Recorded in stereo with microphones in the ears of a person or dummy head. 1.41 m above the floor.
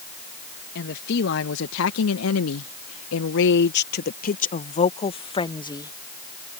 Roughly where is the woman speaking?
Left.